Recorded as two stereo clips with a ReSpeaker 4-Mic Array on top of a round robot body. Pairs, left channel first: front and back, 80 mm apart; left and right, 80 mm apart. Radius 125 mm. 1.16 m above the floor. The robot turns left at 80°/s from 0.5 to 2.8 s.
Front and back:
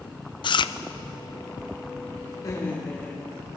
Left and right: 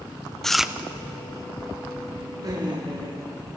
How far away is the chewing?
About 0.7 m.